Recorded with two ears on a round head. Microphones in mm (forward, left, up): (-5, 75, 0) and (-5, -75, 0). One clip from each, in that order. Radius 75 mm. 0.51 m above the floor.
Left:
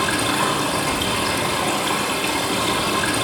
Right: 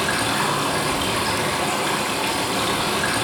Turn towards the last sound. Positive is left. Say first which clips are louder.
# left 1 dB
turn(degrees=-5)  # may be behind; listen again after turning